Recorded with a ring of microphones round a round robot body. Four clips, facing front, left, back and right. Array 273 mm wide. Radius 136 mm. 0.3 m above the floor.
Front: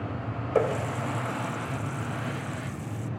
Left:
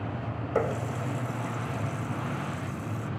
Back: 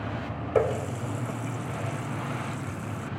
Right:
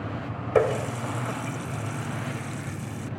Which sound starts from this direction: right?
A running tap, at 0.6 s.